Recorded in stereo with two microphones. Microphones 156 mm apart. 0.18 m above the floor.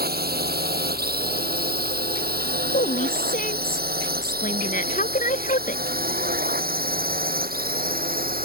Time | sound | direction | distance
0.0 | a drone | 75° right (ahead or behind) | ?
2.7 | a woman speaking | 55° left (ahead or behind) | ?